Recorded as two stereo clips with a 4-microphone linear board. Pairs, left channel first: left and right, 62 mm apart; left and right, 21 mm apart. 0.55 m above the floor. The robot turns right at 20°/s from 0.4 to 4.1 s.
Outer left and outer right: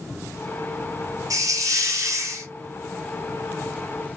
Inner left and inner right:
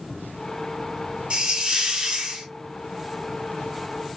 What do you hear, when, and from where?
1.3 s a hiss: 75° right (ahead or behind), 1.8 m; by 2.5 s 50° right (ahead or behind), 1.8 m